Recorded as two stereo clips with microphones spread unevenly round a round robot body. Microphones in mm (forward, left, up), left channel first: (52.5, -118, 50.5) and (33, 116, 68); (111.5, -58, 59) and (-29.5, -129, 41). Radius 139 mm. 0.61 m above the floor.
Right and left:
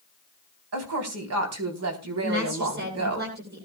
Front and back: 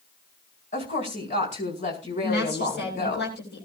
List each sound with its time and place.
0.7 s a woman speaking: 85° left, 4 m
2.2 s a woman speaking: 55° left, 9 m